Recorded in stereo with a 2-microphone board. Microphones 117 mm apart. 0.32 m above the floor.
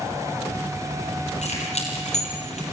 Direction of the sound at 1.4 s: 80° left.